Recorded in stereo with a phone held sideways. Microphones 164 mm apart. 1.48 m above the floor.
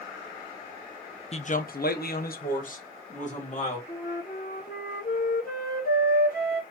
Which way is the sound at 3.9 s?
60° left (ahead or behind).